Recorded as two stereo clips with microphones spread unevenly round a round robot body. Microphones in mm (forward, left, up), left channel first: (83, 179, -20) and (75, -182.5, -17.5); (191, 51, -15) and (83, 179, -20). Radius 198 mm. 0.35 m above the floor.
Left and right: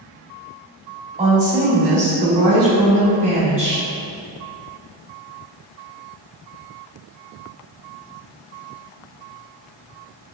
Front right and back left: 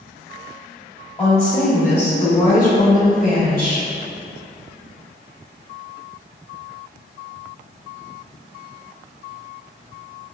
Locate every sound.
1.2 s a woman speaking: 35° right, 1.8 m; by 3.8 s 25° right, 3 m